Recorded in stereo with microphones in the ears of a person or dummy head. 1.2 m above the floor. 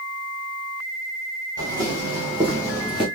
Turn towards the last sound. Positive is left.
turn(degrees=15)  # may be behind; listen again after turning